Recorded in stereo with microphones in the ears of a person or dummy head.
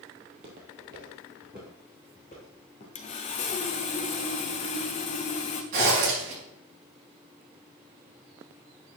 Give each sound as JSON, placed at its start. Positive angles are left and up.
{"t": 0.2, "sound": "footsteps", "side_deg": -40, "distance_m": 2.0}
{"t": 3.0, "sound": "sawing", "side_deg": 35, "distance_m": 0.9}
{"t": 5.7, "sound": "a zipper", "side_deg": -50, "distance_m": 4.5}